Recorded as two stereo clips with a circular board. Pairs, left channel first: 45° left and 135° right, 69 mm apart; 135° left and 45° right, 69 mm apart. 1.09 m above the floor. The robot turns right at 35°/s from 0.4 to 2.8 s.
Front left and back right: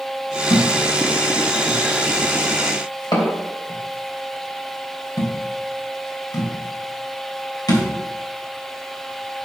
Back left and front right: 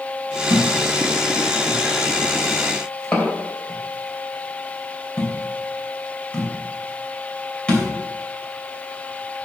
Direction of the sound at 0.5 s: 20° right.